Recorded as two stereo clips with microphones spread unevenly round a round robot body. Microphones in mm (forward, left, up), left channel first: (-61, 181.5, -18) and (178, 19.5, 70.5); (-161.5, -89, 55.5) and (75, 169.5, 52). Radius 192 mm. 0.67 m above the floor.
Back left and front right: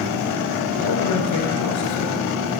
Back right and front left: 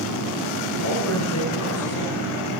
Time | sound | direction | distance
0.8 | a man speaking | straight behind | 9 m